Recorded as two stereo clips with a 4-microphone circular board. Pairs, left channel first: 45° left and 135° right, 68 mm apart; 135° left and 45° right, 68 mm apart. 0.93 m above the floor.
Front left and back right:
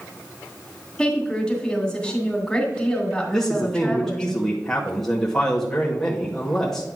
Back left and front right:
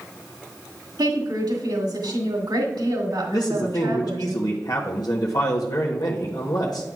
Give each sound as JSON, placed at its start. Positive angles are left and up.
{"t": 1.0, "sound": "a woman speaking", "azimuth_deg": -35, "distance_m": 2.0}
{"t": 3.3, "sound": "a man speaking", "azimuth_deg": 130, "distance_m": 0.9}